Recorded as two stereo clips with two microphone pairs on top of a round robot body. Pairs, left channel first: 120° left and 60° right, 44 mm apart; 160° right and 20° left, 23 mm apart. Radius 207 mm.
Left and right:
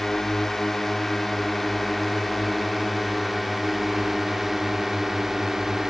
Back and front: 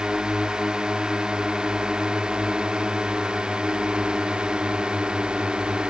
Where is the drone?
50° left; by 5.9 s 25° left.